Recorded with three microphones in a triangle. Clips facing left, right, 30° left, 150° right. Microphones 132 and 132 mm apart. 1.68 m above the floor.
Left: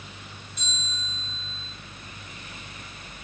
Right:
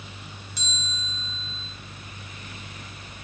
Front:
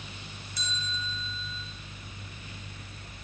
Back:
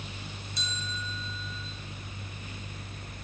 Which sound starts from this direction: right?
A bell, at 0.6 s.